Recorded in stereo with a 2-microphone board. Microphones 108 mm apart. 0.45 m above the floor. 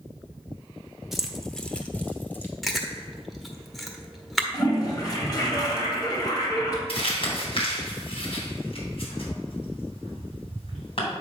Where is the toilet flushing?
40° left (ahead or behind), 2 m.